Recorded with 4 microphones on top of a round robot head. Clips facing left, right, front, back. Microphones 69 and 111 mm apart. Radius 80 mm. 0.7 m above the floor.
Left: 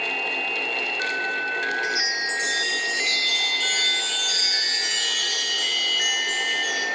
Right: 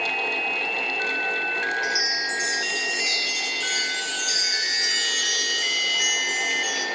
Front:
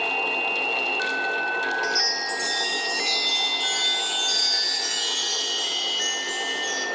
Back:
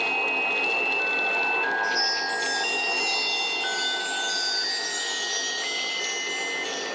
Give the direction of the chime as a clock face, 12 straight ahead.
12 o'clock.